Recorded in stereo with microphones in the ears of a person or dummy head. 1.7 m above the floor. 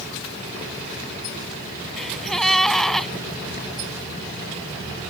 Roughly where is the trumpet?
I don't hear a trumpet.